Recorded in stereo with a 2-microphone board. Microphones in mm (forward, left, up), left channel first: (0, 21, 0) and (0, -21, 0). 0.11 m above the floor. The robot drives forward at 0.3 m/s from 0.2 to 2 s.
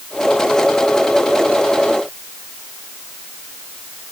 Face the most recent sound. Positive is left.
No sound to turn to.